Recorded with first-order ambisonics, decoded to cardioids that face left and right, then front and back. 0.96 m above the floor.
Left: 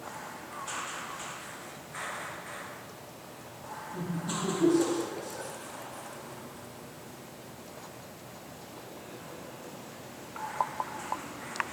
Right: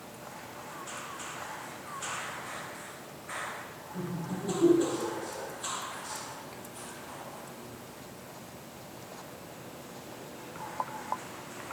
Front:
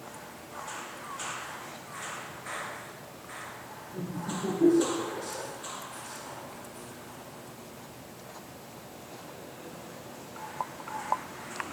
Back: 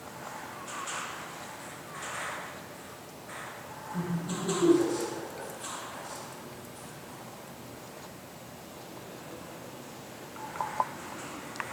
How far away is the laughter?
About 2.5 m.